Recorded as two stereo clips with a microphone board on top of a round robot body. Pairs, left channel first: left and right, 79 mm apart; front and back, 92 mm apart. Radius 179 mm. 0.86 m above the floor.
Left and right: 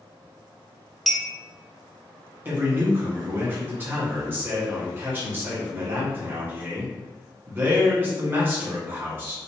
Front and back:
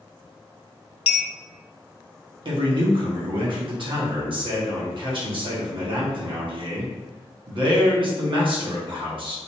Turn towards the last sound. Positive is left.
turn(degrees=-155)